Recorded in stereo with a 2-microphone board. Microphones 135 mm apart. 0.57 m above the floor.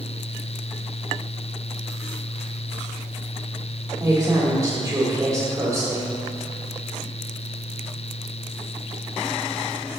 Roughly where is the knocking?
I don't hear knocking.